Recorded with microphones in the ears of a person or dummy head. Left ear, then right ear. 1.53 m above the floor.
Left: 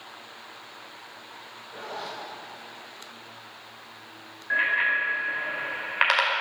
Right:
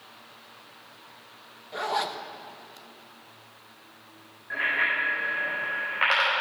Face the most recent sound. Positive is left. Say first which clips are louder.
# left 2 dB
turn(degrees=85)